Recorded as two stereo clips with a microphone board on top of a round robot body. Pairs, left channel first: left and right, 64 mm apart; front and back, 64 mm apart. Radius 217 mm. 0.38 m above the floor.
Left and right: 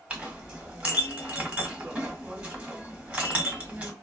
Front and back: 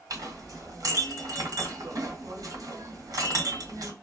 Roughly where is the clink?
Behind.